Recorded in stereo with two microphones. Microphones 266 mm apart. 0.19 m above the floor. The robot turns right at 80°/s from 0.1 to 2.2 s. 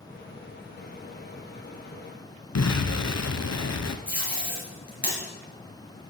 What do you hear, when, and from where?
2.5 s an explosion: 75° left (ahead or behind), 0.6 m
4.1 s tape being pulled: 35° left (ahead or behind), 2.5 m